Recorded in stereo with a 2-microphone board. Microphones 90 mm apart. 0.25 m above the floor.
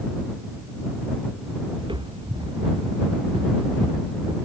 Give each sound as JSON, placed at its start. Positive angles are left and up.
{"t": 1.8, "sound": "footsteps", "side_deg": -65}